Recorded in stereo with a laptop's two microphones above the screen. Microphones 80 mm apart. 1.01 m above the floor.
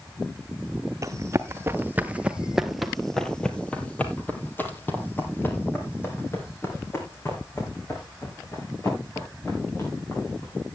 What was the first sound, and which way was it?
Running footsteps, 40° right (ahead or behind).